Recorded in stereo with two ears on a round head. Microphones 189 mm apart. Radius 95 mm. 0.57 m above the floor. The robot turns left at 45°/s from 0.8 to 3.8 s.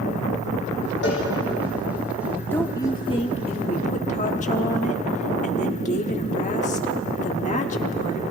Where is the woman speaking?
165° left, 1.4 m; by 8.2 s 105° left, 1.4 m.